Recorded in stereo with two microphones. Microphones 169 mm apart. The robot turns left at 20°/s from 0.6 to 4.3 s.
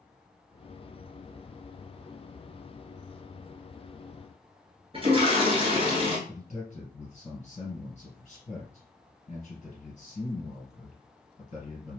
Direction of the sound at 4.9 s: 35° right (ahead or behind).